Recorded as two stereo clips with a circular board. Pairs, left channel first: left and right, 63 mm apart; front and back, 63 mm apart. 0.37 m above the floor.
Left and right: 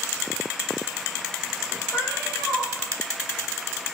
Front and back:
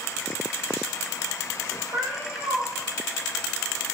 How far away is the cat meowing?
About 5 m.